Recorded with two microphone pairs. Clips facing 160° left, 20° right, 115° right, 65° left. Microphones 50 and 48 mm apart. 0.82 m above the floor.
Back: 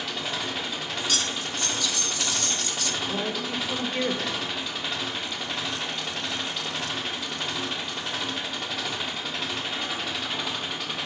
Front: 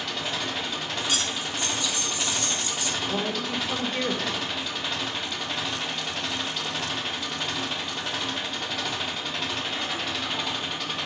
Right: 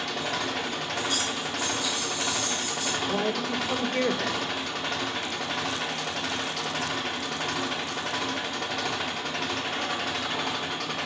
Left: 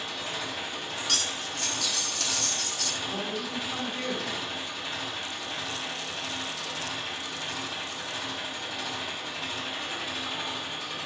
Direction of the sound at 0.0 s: 115° right.